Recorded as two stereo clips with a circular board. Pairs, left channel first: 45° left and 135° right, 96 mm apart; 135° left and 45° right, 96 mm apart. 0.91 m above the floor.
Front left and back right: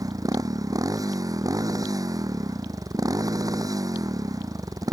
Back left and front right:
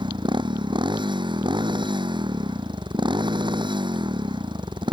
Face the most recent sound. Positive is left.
turn(degrees=-85)